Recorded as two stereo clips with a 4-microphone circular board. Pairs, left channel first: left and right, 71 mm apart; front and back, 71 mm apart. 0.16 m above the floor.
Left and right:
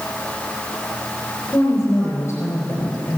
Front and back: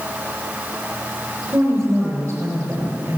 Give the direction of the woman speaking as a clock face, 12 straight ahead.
7 o'clock.